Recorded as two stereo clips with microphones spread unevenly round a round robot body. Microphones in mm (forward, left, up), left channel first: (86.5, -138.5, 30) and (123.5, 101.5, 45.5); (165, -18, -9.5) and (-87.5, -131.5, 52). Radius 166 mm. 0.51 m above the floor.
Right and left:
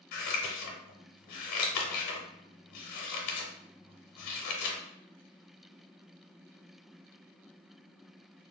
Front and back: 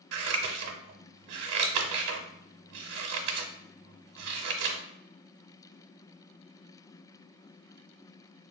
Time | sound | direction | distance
0.1 | scissors | 125° right | 0.5 m